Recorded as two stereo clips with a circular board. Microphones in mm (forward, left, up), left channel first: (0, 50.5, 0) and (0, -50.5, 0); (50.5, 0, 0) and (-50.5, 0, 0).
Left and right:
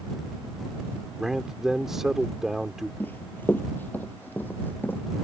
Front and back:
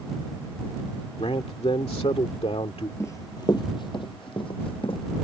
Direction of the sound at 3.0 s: 30° left.